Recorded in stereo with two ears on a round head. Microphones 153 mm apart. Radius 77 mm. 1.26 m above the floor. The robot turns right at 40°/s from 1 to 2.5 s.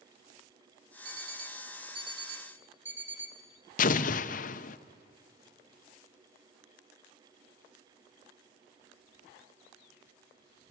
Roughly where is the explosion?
Left.